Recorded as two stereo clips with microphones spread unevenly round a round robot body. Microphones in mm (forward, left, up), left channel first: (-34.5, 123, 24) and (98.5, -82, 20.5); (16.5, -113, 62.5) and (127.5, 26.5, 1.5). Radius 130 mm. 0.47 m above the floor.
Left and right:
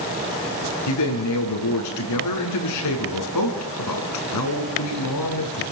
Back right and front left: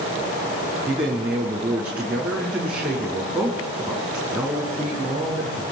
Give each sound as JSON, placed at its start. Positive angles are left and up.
{"t": 0.9, "sound": "a man speaking", "azimuth_deg": 135, "distance_m": 6.5}